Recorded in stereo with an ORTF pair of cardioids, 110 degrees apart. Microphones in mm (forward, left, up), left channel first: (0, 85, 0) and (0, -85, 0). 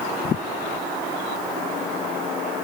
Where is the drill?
No drill in this recording.